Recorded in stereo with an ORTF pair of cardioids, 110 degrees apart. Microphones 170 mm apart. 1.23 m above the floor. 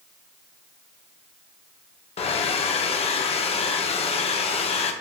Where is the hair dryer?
35° left, 0.5 m.